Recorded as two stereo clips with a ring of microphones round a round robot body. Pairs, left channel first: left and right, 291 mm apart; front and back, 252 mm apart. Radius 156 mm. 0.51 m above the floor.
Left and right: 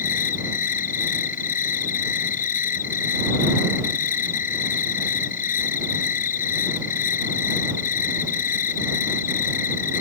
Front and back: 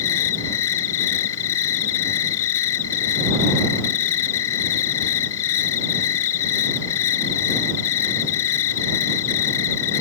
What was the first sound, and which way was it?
An insect, 30° left.